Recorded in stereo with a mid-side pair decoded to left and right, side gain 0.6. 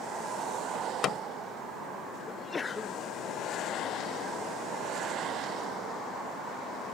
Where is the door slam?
45° left.